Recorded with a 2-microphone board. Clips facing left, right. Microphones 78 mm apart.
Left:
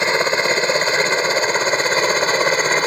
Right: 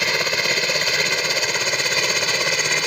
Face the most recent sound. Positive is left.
turn(degrees=35)  # may be behind; listen again after turning